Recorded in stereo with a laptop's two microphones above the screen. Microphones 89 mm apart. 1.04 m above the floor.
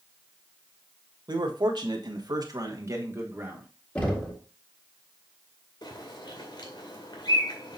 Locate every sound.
1.3 s a man speaking: 60° right (ahead or behind), 1.5 m; by 3.7 s 20° right (ahead or behind), 1.3 m
4.0 s knocking: 20° left (ahead or behind), 1.5 m
5.8 s a bird: 60° left (ahead or behind), 2 m